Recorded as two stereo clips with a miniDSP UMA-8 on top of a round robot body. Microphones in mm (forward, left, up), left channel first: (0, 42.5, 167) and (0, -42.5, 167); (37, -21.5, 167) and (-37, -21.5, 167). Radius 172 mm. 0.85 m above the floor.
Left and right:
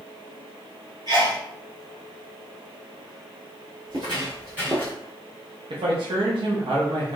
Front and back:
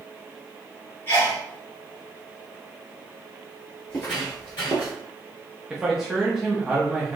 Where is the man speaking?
95° right, 0.9 m.